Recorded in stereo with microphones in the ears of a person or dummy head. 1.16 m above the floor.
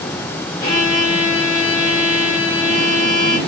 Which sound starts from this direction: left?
A violin, at 0.6 s.